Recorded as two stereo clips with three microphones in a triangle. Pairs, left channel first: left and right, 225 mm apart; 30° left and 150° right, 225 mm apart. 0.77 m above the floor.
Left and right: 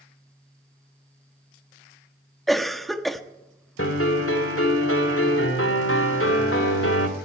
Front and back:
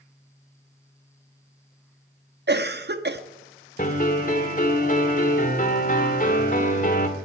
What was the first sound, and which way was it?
A cough, straight behind.